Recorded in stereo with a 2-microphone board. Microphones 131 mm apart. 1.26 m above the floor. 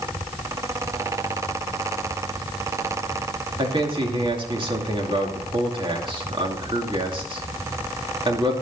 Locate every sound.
3.6 s a man speaking: 40° right (ahead or behind), 2.5 m